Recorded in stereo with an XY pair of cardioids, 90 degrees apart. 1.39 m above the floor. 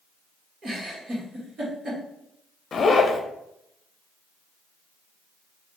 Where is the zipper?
50° left, 0.7 m.